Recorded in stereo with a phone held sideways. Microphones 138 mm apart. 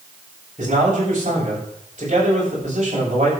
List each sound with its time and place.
0.6 s a man speaking: 60° right (ahead or behind), 7.5 m